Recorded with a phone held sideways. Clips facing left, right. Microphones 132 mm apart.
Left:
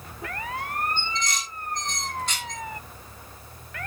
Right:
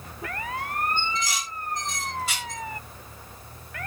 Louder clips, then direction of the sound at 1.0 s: Right 2 dB; 5° right (ahead or behind).